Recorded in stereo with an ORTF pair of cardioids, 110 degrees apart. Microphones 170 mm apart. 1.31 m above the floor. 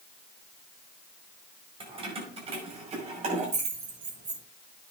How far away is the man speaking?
I don't hear a man speaking.